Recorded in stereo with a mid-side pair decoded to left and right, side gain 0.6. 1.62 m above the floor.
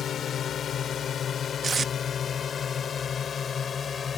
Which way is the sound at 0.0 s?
45° left.